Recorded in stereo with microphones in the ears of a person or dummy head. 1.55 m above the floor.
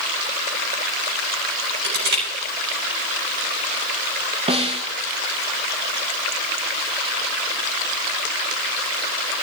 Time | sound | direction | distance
1.8 | crushing | 60° right (ahead or behind) | 7 m
4.5 | a snare drum | 25° right (ahead or behind) | 1.2 m